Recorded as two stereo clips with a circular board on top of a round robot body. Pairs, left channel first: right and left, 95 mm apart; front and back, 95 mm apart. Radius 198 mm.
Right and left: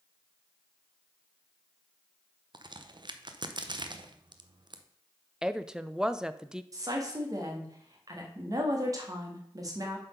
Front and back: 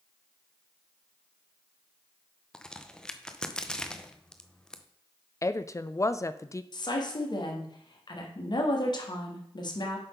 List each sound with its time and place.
2.5 s a crack: 80° left, 0.8 m
5.4 s a woman speaking: 15° left, 0.6 m
6.7 s a woman speaking: 40° left, 1.7 m